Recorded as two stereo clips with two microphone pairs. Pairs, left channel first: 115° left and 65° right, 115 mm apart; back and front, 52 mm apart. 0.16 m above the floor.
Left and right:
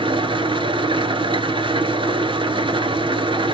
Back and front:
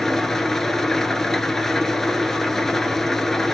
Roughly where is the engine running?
Right.